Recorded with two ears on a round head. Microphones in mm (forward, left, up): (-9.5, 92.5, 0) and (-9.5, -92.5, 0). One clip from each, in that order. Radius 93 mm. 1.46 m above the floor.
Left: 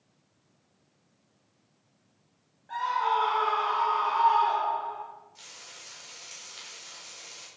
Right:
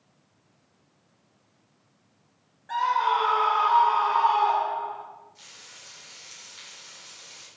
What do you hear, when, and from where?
2.7 s a scream: 50° right (ahead or behind), 3 m; by 5.0 s 30° right (ahead or behind), 3.5 m
5.3 s frying: 20° left (ahead or behind), 5 m